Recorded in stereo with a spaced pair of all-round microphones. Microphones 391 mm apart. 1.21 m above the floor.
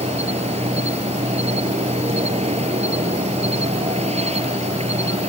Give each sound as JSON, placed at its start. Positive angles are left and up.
{"t": 0.0, "sound": "an insect", "side_deg": -15}